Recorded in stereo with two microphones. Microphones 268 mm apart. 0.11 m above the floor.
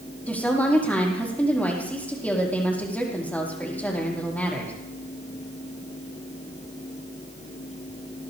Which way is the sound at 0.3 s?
5° left (ahead or behind).